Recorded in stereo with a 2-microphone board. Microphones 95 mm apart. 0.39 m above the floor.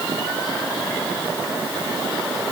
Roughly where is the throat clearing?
No throat clearing in this recording.